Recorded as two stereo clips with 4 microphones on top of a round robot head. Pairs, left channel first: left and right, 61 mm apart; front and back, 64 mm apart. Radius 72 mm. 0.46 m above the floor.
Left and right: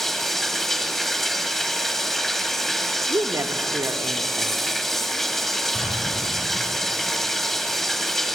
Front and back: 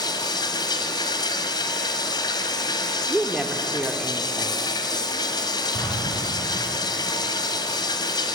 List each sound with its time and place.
0.0 s running water: 5° left, 1.7 m
3.1 s a woman speaking: 95° right, 1.1 m
5.7 s an explosion: 5° left, 9.5 m